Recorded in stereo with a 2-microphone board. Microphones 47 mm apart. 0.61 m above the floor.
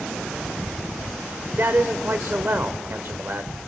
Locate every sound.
1.6 s a man speaking: 55° right (ahead or behind), 1.7 m